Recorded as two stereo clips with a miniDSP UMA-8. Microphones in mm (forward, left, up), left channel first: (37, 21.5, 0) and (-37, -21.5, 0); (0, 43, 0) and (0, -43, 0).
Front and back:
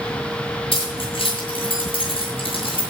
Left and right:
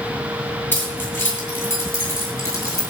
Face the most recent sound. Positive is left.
turn(degrees=30)